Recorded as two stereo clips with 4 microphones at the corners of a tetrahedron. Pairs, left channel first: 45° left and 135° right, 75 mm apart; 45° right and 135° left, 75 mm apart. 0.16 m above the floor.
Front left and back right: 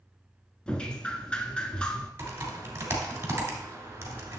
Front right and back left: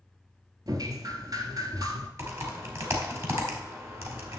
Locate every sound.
0.7 s dripping: 120° left, 0.9 m
2.2 s typing on a keyboard: 170° left, 2.0 m